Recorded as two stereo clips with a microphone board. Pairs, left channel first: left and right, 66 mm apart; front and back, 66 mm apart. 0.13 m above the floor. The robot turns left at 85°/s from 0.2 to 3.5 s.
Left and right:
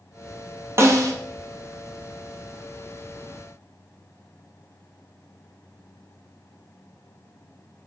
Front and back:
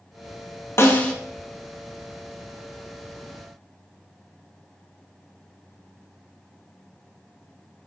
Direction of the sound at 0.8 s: 45° right.